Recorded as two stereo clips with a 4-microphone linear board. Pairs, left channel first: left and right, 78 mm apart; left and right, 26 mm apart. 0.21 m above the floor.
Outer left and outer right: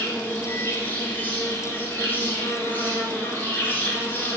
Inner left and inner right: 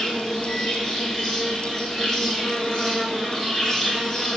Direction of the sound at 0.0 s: 25° left (ahead or behind).